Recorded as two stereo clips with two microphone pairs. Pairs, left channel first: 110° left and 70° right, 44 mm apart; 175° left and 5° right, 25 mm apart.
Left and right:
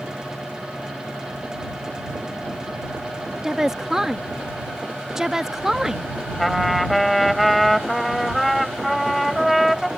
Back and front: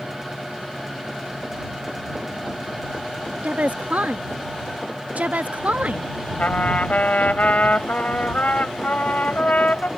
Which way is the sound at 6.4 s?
165° right.